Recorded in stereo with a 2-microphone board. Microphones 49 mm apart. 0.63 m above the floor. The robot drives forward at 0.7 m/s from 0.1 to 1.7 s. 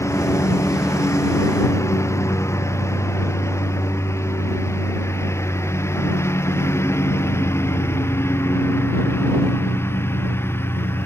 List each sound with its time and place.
0.0 s a lawn mower: 75° left (ahead or behind); by 11.1 s 55° left (ahead or behind)